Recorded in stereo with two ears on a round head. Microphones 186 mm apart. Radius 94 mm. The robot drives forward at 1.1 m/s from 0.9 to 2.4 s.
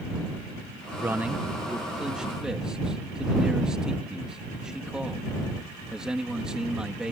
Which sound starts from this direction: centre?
A man speaking, at 1.0 s.